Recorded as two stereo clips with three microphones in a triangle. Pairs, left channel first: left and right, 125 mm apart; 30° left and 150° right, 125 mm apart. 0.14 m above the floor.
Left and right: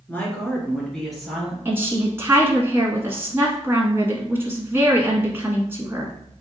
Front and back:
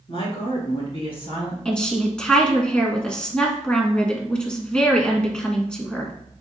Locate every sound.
0.1 s a woman speaking: 20° left, 2.5 m; by 1.6 s 5° right, 3 m
1.6 s a woman speaking: 45° right, 1.3 m